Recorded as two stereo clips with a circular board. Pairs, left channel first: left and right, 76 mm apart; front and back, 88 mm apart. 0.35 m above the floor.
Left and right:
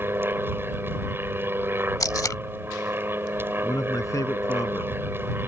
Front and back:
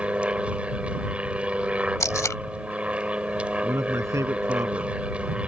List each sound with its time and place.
0.0 s an aircraft: 115° right
2.0 s tape being pulled: 55° left
3.6 s a man speaking: 130° left